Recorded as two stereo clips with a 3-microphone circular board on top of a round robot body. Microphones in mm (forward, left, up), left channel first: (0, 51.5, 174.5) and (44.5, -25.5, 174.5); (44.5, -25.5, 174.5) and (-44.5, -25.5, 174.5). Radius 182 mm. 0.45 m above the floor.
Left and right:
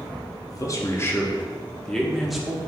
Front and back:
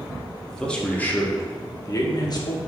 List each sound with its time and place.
0.5 s a man speaking: 85° left, 1.5 m; by 2.6 s 25° left, 1.8 m